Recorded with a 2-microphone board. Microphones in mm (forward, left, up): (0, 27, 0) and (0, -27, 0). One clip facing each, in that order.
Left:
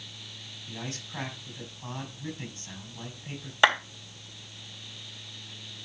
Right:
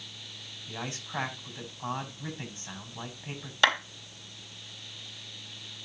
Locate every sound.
0.7 s a man speaking: 35° right (ahead or behind), 5 m
3.6 s a clap: 20° left (ahead or behind), 3.5 m